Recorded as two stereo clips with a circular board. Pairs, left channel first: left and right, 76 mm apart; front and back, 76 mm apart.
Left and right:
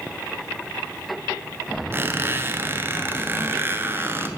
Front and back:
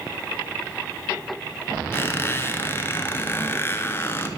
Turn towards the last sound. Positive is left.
turn(degrees=-45)